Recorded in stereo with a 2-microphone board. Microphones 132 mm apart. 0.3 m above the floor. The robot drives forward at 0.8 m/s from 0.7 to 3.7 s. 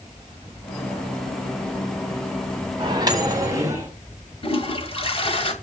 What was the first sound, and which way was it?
A microwave, 35° right (ahead or behind).